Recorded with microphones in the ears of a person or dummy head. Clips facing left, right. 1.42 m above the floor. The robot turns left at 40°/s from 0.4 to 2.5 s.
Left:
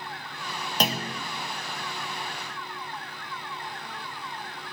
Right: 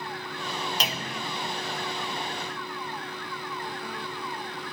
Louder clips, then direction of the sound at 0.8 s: Left 4 dB; 45° left (ahead or behind).